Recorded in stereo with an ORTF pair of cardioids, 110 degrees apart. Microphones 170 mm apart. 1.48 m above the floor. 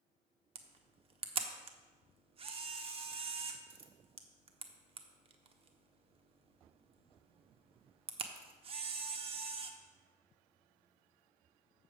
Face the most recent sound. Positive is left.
turn(degrees=-35)